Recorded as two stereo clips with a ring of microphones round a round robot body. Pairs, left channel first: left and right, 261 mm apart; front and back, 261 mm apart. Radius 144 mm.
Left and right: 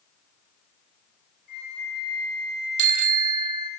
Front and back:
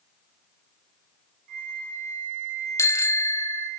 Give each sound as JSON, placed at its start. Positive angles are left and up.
{"t": 1.5, "sound": "a flute", "azimuth_deg": 150, "distance_m": 8.5}
{"t": 2.8, "sound": "a bicycle bell", "azimuth_deg": -80, "distance_m": 2.5}